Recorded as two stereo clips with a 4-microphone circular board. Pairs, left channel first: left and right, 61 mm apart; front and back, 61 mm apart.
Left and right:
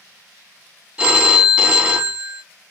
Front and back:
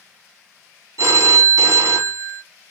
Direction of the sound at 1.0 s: 165° right.